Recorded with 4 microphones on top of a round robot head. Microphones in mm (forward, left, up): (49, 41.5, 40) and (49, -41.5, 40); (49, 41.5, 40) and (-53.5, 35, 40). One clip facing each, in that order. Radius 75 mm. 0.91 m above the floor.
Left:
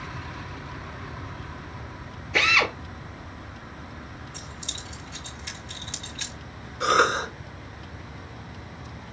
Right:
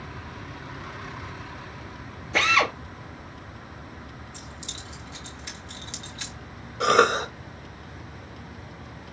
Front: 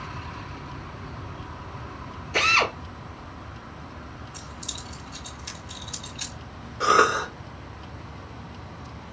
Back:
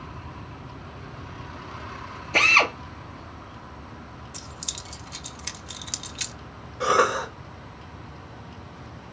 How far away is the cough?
About 1.0 m.